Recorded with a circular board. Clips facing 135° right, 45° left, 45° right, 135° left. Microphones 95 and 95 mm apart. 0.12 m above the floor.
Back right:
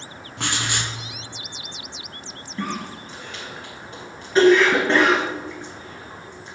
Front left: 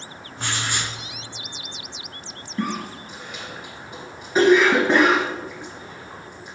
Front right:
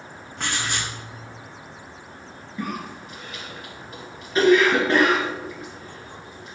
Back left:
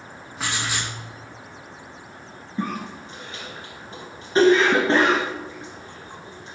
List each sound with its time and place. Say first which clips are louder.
0.4 s writing: back right 1 dB, even; 140° right, 1.2 m
2.6 s a cough: front left 2 dB, back left 2 dB; 115° left, 1.4 m